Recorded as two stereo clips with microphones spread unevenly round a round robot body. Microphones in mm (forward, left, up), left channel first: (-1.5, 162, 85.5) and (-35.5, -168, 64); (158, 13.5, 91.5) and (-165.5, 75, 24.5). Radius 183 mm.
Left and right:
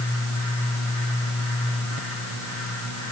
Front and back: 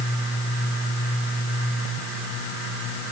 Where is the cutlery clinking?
I don't hear cutlery clinking.